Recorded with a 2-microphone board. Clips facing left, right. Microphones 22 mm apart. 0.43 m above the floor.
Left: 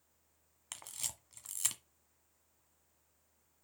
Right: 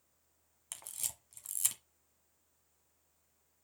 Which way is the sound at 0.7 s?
15° left (ahead or behind).